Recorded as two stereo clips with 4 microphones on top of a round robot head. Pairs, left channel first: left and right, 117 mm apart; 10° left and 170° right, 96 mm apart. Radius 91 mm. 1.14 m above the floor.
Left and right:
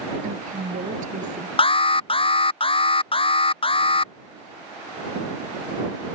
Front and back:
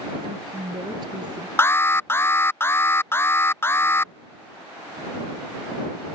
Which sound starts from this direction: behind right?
A woman speaking, at 0.2 s.